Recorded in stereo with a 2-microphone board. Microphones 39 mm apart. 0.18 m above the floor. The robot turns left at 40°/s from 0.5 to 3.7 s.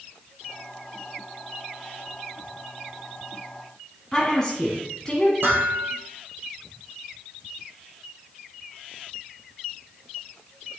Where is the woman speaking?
15° left (ahead or behind), 1.2 m.